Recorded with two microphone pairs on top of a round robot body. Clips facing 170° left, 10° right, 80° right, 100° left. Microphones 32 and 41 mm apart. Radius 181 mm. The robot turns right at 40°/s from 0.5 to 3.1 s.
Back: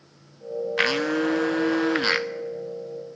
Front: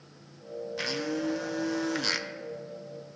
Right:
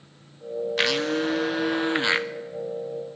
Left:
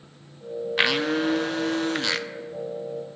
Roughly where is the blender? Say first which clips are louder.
Back 9 dB, left 2 dB; behind.